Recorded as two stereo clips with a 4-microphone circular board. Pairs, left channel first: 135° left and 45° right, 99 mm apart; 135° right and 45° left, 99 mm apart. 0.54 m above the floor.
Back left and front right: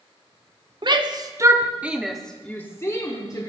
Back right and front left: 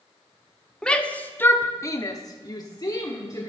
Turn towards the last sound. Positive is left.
turn(degrees=175)